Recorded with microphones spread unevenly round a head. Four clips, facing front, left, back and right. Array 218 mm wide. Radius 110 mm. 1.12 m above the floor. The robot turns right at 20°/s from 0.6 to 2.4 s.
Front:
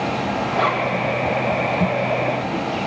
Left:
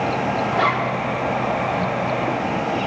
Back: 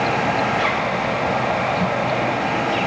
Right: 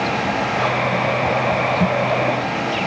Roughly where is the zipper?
Ahead left.